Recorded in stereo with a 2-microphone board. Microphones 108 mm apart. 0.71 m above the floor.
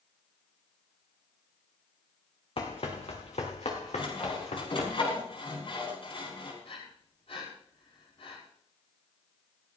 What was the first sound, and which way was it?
Running footsteps, 60° left (ahead or behind).